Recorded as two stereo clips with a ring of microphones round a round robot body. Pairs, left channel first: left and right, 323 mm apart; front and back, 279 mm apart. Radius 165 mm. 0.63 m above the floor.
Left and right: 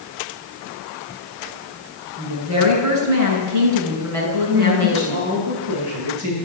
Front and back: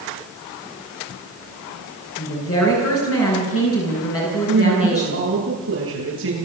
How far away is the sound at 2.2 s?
About 9 m.